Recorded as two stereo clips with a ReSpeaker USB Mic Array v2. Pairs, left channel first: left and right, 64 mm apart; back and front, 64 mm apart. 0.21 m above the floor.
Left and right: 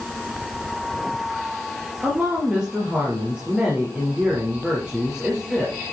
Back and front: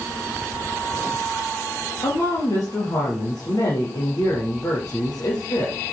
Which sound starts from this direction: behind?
A woman speaking, at 2.0 s.